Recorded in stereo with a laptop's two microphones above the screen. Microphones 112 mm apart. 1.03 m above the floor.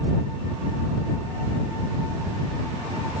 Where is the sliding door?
No sliding door in this recording.